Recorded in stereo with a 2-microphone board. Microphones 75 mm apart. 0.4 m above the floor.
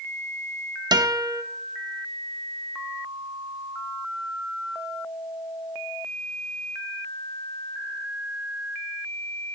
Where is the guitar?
70° right (ahead or behind), 0.9 m.